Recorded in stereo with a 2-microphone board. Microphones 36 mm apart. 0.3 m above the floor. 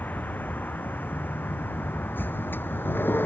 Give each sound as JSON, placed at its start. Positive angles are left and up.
{"t": 0.0, "sound": "a vehicle", "side_deg": 60}